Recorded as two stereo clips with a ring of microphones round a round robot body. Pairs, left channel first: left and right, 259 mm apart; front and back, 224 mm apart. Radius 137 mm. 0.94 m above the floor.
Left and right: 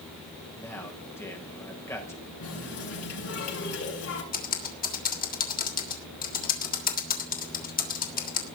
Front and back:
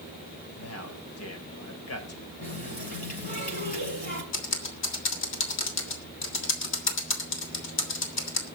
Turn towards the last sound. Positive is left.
turn(degrees=30)